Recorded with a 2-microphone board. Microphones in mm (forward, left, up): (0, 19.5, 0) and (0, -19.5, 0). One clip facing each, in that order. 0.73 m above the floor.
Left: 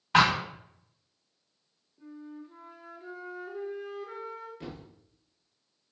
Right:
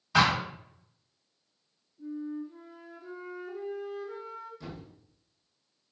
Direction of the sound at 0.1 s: 45° left (ahead or behind).